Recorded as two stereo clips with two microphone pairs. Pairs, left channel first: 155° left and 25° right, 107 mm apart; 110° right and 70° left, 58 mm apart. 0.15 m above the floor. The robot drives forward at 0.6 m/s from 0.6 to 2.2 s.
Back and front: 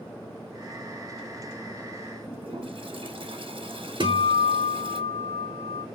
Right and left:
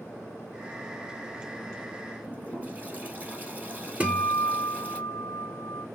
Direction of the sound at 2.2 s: 10° left.